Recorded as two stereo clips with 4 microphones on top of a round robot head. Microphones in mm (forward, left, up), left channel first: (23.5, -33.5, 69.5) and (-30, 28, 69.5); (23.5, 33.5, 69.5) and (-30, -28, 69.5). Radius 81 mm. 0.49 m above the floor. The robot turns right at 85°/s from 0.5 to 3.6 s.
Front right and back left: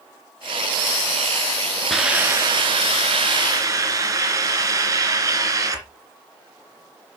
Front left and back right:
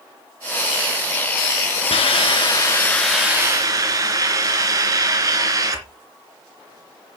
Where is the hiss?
35° left, 2.5 m; by 5.8 s straight behind, 2.5 m.